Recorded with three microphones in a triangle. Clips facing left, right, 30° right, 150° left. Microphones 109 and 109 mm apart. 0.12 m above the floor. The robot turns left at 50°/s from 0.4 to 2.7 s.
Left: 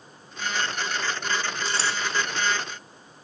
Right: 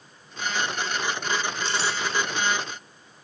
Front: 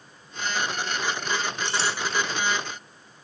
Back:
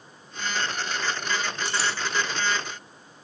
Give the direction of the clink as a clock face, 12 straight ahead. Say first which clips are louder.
Right 1 dB, front 1 dB; 11 o'clock.